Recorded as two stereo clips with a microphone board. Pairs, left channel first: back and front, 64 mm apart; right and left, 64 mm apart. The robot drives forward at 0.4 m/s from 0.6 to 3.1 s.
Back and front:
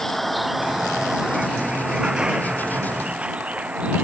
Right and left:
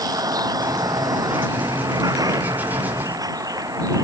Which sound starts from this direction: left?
A vehicle, at 0.0 s.